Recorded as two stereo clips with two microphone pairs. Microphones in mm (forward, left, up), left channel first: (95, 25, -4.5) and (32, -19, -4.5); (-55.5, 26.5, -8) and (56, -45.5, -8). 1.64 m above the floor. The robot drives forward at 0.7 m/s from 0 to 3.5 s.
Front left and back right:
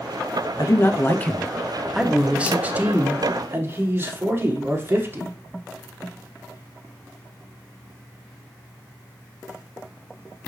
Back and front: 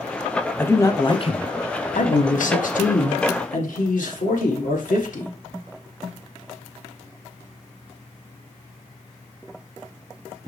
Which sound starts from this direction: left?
A man speaking, at 0.6 s.